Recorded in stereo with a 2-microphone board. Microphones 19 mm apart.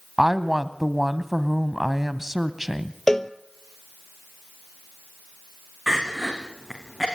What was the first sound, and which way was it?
A woman speaking, 10° right (ahead or behind).